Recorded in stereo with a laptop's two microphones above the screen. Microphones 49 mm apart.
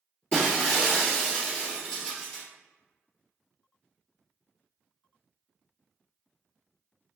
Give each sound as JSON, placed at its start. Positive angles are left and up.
{"t": 0.3, "sound": "breaking glass", "side_deg": 15, "distance_m": 1.7}